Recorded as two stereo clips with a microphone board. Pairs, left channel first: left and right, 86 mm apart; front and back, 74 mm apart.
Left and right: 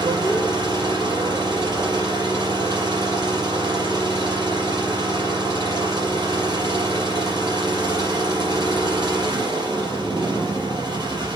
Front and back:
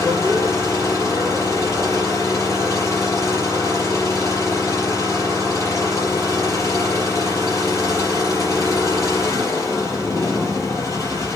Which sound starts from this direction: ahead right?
An engine running, at 0.0 s.